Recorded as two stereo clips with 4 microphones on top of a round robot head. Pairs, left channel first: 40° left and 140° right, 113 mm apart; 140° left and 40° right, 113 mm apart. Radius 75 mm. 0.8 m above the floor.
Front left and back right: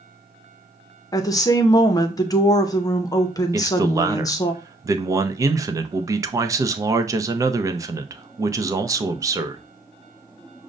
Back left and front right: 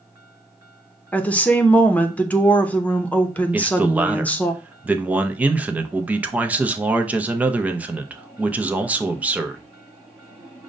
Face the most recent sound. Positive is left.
turn(degrees=-110)